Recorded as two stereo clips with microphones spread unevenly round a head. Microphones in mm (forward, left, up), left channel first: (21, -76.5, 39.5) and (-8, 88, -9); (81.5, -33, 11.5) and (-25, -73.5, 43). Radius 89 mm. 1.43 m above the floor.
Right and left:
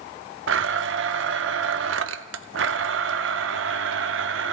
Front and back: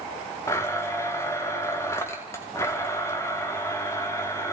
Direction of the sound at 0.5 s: 105° left.